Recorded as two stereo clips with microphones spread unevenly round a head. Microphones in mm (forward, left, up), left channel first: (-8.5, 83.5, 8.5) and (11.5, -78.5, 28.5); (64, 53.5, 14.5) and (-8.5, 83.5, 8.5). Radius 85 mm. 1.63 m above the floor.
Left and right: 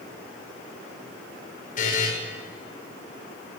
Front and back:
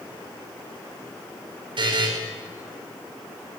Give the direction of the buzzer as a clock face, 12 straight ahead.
7 o'clock.